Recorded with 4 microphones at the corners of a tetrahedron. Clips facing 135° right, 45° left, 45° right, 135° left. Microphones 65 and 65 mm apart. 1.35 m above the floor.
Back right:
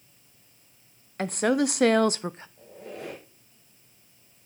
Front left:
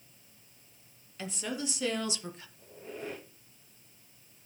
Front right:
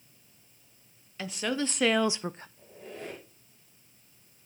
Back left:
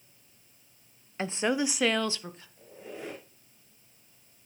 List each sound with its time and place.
1.2 s a woman speaking: 170° right, 0.8 m; by 2.5 s 80° right, 0.6 m
2.6 s a squeak: 145° right, 5 m